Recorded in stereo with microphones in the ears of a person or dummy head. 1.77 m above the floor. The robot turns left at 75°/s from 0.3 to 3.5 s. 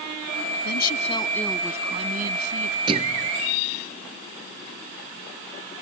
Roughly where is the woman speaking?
Ahead left.